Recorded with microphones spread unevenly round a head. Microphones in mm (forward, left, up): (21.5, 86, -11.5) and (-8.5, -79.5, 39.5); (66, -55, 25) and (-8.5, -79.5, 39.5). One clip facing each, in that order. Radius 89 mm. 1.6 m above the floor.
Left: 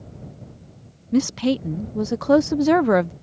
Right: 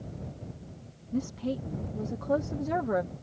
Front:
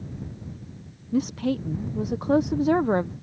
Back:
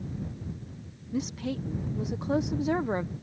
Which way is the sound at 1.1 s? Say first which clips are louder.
Left 12 dB, front 7 dB; 95° left.